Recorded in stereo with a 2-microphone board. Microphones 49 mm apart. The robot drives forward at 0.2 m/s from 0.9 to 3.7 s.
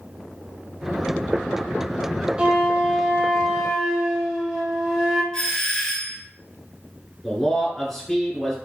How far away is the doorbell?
About 1.6 m.